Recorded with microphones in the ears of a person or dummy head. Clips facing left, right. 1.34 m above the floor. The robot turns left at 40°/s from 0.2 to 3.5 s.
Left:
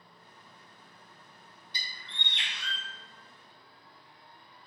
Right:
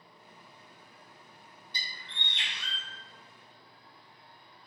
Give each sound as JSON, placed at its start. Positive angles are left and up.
{"t": 1.7, "sound": "a bird", "azimuth_deg": 85, "distance_m": 1.0}